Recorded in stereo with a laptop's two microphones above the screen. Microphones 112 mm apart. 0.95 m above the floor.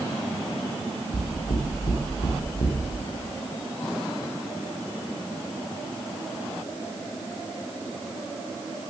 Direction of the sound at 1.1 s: 75° left (ahead or behind).